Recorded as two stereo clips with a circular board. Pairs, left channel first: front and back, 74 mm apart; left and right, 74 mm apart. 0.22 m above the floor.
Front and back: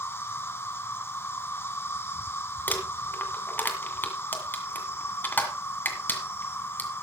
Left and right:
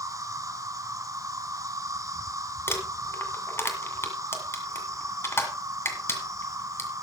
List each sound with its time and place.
0.0 s an insect: 55° right, 1.1 m
2.7 s crumpling: 50° left, 1.8 m